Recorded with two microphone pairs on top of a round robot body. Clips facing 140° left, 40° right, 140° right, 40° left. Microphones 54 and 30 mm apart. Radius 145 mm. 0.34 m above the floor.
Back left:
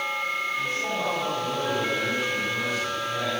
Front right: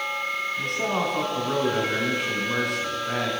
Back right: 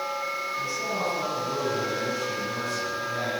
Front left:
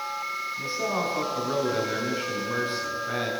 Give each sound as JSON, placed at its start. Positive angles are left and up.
{"t": 0.6, "sound": "a man speaking", "azimuth_deg": -15, "distance_m": 6.5}